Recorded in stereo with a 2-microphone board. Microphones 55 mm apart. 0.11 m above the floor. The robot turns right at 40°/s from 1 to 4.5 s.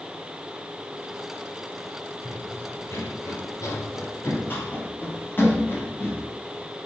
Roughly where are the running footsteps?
Left.